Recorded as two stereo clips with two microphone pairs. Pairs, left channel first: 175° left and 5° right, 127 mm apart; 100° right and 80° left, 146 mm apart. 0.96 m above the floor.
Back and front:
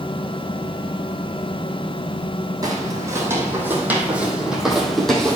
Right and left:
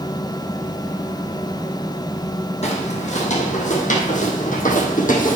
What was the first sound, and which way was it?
Footsteps, 70° right.